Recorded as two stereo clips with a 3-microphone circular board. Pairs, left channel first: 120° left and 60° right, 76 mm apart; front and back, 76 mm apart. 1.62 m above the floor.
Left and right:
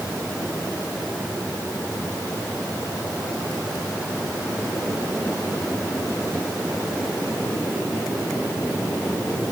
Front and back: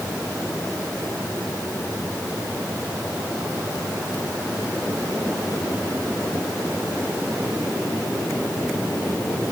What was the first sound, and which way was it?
Only background noise.